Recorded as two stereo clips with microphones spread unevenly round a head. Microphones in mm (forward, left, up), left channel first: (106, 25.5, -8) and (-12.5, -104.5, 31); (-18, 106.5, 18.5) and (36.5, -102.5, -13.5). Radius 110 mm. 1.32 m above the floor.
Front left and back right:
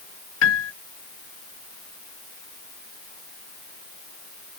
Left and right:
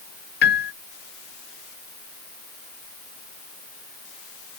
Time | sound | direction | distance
0.4 | a piano | 60° left | ?